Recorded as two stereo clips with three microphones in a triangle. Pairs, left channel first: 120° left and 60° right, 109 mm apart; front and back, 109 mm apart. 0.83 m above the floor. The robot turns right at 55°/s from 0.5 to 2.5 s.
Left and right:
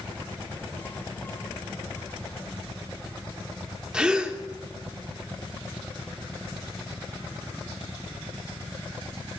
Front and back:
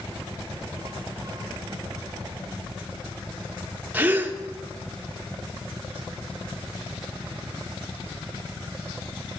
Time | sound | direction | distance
3.9 | a gasp | 135° right | 0.7 m